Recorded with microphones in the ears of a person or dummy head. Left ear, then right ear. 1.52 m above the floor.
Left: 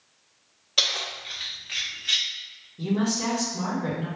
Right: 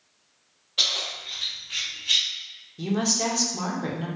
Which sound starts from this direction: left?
Keys jangling, at 0.8 s.